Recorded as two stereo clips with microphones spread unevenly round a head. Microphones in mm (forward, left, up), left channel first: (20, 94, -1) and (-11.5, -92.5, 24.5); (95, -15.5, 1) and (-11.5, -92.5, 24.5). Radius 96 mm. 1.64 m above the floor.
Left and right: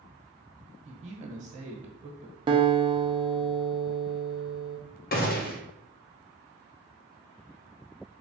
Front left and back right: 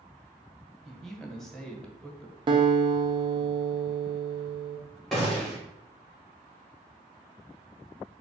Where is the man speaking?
55° right, 1.2 m.